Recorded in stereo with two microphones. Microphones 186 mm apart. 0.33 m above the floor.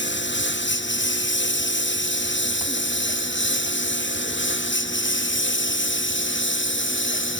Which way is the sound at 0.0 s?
70° left (ahead or behind).